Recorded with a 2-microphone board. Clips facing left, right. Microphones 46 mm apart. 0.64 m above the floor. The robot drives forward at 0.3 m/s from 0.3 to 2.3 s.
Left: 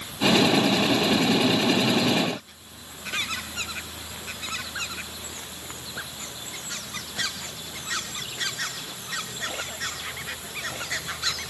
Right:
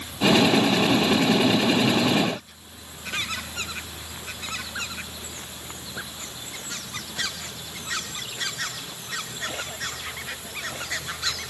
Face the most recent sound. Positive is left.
No sound to turn to.